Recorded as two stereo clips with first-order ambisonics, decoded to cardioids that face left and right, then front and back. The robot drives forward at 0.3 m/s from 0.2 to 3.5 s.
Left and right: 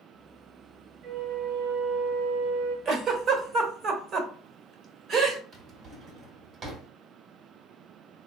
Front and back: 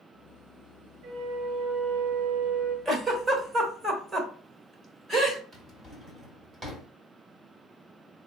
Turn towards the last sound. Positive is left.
turn(degrees=-125)